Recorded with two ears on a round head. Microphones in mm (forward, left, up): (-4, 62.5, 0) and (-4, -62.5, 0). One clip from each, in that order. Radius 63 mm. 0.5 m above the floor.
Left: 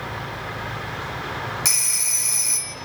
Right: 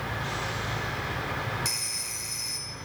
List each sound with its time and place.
1.6 s a phone ringing: 40° left (ahead or behind), 0.7 m